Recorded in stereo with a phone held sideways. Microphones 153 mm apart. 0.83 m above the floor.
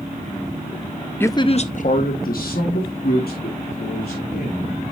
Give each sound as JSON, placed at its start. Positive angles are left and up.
{"t": 1.2, "sound": "a man speaking", "side_deg": 15, "distance_m": 0.5}